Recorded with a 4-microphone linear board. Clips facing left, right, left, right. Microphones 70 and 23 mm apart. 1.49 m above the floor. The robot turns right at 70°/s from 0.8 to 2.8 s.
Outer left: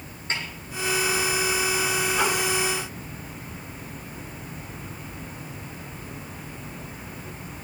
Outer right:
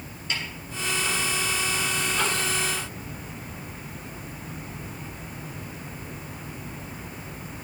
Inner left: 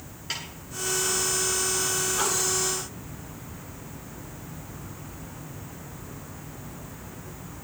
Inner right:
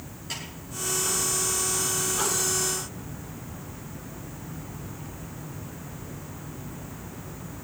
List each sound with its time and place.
0.3 s a snare drum: 35° left (ahead or behind), 8.5 m